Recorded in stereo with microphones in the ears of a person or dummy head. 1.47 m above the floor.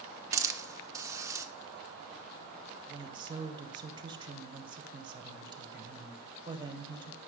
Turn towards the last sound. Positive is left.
turn(degrees=-25)  # may be behind; listen again after turning